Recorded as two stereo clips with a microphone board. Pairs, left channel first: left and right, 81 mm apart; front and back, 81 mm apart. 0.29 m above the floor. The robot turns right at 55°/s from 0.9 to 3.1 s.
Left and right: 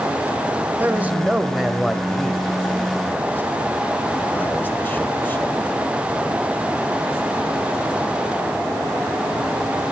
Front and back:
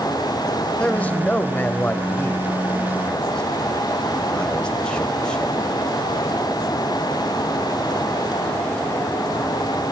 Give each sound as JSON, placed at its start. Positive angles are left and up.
{"t": 0.8, "sound": "a man speaking", "azimuth_deg": -55, "distance_m": 1.1}